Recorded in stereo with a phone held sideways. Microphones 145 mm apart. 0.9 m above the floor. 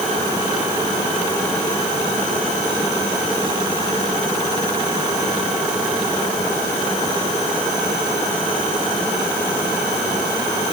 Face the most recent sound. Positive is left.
No sound to turn to.